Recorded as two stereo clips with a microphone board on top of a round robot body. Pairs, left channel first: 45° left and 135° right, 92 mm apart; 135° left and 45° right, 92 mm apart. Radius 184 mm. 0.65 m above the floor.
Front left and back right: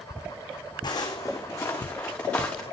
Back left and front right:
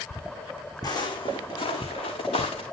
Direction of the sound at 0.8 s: 85° left.